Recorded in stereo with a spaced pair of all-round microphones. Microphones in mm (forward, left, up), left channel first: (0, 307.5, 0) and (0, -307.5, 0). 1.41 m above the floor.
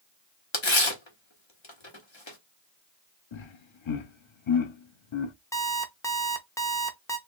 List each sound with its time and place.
0.5 s tearing paper: 50° left (ahead or behind), 1.3 m
3.3 s laughter: 50° left (ahead or behind), 0.7 m
5.5 s an alarm clock: 5° left (ahead or behind), 0.7 m